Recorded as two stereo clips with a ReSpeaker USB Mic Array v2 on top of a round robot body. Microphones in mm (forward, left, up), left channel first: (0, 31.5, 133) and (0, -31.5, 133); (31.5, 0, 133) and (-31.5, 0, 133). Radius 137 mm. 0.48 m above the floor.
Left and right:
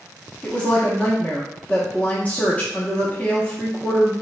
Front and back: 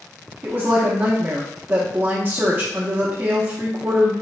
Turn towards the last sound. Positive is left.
turn(degrees=145)